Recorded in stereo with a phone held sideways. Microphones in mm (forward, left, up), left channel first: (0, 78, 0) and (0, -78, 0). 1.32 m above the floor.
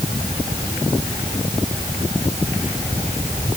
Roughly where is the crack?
I don't hear a crack.